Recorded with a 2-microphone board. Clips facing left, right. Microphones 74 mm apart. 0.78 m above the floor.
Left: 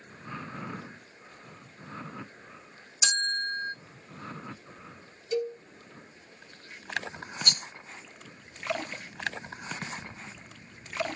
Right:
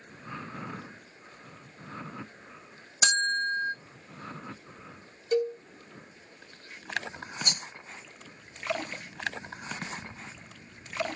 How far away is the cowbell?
About 0.8 m.